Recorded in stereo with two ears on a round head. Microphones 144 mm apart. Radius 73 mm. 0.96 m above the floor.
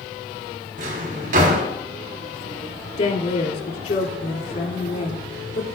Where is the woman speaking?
60° left (ahead or behind), 2.5 m.